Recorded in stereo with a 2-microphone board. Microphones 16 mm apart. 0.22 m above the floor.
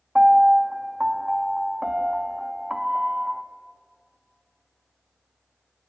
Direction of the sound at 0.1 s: 45° right (ahead or behind).